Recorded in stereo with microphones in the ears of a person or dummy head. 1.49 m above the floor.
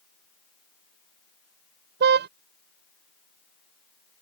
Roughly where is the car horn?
Right.